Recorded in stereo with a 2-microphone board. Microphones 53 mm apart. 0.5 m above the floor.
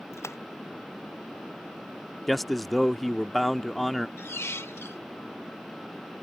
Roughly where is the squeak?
Left.